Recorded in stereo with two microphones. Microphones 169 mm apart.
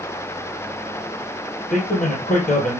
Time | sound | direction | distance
1.7 | a man speaking | 55° left (ahead or behind) | 1.9 m